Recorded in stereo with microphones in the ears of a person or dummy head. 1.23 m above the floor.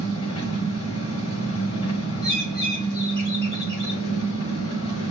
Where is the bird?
30° right (ahead or behind), 1.2 m.